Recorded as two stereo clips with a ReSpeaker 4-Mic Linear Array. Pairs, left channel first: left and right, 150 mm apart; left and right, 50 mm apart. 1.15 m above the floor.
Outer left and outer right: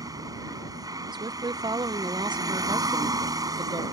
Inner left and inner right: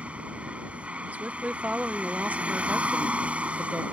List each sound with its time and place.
0.0 s a vehicle: 25° right (ahead or behind)
1.1 s a woman speaking: 30° right (ahead or behind)